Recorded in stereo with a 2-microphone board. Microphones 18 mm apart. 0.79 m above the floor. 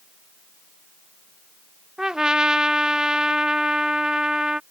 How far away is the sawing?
I don't hear sawing.